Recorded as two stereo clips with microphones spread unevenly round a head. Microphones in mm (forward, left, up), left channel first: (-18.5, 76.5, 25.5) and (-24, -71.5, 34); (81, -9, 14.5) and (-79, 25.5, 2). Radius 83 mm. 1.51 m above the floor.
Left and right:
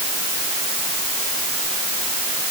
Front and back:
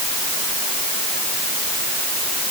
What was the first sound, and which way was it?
Only background noise.